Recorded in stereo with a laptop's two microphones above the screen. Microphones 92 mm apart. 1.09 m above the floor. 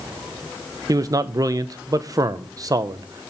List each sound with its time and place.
0.9 s a man speaking: 35° right (ahead or behind), 0.6 m